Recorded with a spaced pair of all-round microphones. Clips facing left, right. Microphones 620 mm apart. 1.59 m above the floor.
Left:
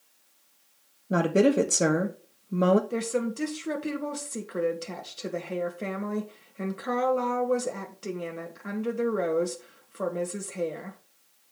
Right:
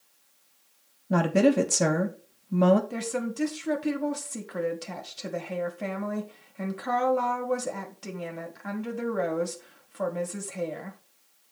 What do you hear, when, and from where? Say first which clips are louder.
1.1 s a woman speaking: even; 25° right (ahead or behind), 1.2 m
2.9 s a woman speaking: left 3 dB; 20° right (ahead or behind), 1.6 m